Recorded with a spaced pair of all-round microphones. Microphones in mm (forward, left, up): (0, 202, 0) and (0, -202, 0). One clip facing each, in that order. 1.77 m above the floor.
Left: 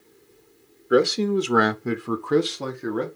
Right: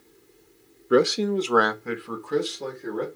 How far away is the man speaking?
About 0.6 m.